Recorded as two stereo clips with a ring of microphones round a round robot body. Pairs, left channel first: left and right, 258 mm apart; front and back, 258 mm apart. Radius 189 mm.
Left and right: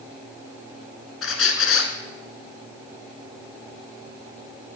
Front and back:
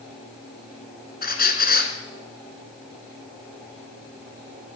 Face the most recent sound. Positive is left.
turn(degrees=55)